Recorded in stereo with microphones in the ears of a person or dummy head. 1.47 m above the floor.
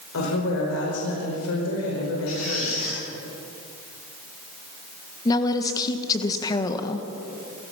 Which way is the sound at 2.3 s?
40° left (ahead or behind).